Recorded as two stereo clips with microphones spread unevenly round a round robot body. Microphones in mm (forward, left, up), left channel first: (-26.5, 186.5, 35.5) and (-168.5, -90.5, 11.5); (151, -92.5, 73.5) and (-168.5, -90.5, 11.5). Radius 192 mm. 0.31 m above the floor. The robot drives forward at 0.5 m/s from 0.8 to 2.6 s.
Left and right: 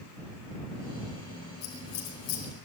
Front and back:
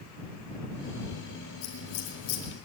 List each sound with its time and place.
1.6 s scissors: 30° left, 4.5 m; by 2.5 s 35° left, 4.5 m